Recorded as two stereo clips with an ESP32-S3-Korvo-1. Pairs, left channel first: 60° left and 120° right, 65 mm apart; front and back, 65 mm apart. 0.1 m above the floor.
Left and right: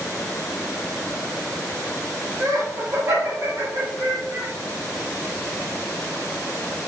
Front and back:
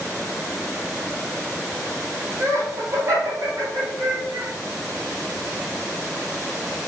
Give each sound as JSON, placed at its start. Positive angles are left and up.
{"t": 2.4, "sound": "laughter", "azimuth_deg": -155, "distance_m": 2.0}